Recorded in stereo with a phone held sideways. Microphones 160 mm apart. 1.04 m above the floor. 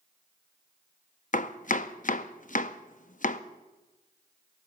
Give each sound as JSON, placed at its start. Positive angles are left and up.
{"t": 1.3, "sound": "chopping", "side_deg": 55, "distance_m": 0.5}